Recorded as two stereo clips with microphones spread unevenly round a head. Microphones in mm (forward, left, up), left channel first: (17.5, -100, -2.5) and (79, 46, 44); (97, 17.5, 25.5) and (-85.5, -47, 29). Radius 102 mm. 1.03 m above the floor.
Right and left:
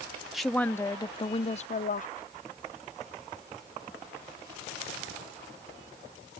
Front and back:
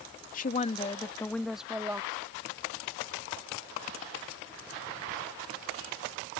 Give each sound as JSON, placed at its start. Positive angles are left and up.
{"t": 0.3, "sound": "a woman speaking", "azimuth_deg": -25}